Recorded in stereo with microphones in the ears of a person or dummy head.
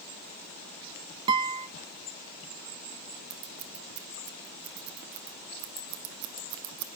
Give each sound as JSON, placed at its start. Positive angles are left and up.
{"t": 1.3, "sound": "a guitar", "side_deg": -25, "distance_m": 0.9}
{"t": 3.3, "sound": "scissors", "side_deg": -65, "distance_m": 1.2}